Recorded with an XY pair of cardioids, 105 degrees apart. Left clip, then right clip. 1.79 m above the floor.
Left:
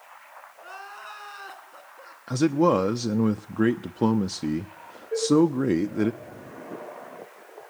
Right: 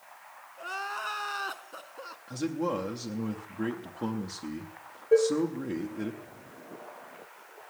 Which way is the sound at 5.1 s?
65° right.